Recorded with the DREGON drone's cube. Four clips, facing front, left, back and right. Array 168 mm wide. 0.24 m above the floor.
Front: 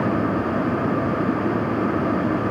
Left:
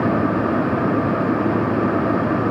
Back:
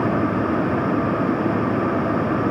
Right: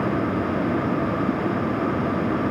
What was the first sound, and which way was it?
Only background noise.